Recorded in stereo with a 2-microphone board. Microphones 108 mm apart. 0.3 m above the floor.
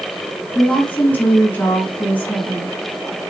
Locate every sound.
0.6 s a woman speaking: 15° left (ahead or behind), 3 m